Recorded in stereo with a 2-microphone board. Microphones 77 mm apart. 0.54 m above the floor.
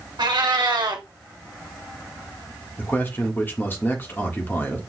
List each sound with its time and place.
0.2 s a cat meowing: 75° right (ahead or behind), 1.3 m
2.8 s a man speaking: 25° left (ahead or behind), 1.3 m